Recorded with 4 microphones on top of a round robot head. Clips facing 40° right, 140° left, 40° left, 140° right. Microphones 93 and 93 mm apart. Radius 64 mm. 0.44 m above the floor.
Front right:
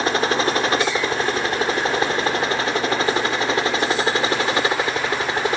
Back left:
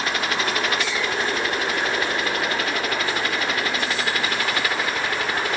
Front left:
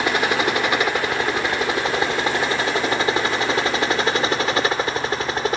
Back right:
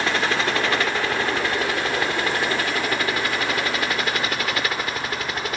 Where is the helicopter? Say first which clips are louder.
Front right 5 dB, front left 2 dB; 20° right; by 5.6 s 10° left.